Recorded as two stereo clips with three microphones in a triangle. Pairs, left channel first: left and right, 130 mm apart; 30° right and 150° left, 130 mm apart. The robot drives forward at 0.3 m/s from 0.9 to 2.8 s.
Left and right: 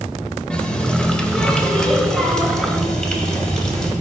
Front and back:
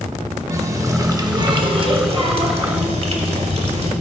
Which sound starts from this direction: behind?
A running tap, at 0.5 s.